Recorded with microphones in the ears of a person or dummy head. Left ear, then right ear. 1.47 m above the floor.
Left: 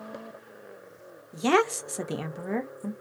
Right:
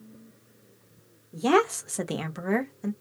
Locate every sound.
1.3 s a woman speaking: 25° left (ahead or behind), 0.7 m; by 2.9 s 45° right (ahead or behind), 0.8 m